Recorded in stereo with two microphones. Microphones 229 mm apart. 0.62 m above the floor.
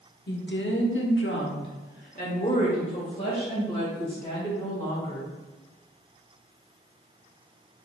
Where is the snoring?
I don't hear snoring.